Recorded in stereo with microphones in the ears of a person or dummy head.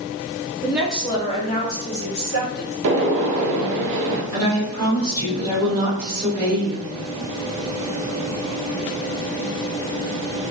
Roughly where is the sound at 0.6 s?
Centre.